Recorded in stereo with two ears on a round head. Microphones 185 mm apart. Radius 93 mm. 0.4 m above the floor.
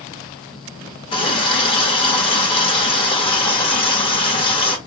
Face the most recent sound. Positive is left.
turn(degrees=25)  # may be behind; listen again after turning